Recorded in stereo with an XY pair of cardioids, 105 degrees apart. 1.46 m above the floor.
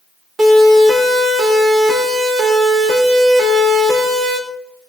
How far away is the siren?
About 5 m.